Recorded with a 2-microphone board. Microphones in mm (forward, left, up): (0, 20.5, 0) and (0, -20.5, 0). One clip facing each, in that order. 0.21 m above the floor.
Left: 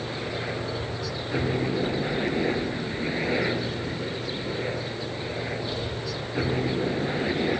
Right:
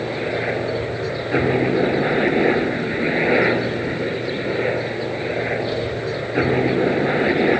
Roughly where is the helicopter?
Right.